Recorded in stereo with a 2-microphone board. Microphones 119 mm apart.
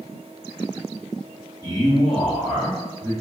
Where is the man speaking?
30° left (ahead or behind), 1.6 m; by 3.1 s 45° left (ahead or behind), 3 m.